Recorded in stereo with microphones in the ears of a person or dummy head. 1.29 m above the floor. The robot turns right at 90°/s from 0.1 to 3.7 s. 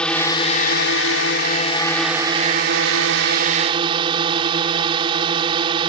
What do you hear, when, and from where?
0.0 s a drone: 5° left; by 5.9 s 30° right